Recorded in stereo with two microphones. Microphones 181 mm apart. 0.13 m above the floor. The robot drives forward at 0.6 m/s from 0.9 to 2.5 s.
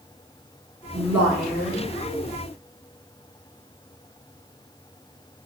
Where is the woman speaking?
10° right (ahead or behind), 1.7 m.